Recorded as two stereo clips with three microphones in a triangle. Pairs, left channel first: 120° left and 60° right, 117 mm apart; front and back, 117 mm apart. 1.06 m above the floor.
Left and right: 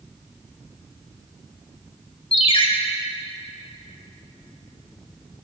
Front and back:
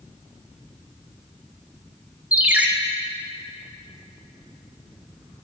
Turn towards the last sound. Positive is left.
turn(degrees=105)